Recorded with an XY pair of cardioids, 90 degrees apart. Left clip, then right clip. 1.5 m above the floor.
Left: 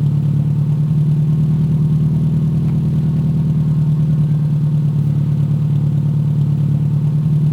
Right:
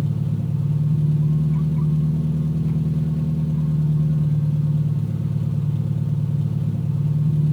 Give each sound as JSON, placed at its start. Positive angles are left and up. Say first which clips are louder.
{"t": 0.0, "sound": "an engine running", "louder": "left 7 dB", "azimuth_deg": 60, "distance_m": 1.1}